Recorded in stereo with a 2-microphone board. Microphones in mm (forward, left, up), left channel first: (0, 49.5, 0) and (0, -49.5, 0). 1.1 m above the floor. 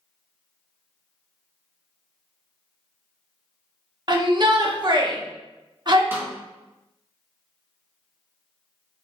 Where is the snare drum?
20° right (ahead or behind), 1.3 m.